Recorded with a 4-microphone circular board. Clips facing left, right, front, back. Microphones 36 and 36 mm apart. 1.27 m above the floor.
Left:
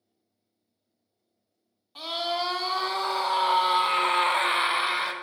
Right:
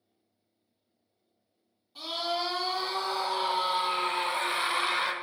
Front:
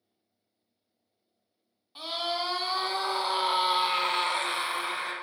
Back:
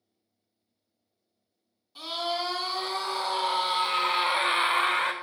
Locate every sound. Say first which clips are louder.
1.9 s a scream: left 3 dB, back 1 dB; 60° left, 2.0 m; by 5.1 s straight behind, 0.6 m